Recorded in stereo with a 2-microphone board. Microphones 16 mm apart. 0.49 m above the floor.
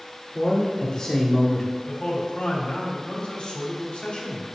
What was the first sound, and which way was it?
A man speaking, 45° left (ahead or behind).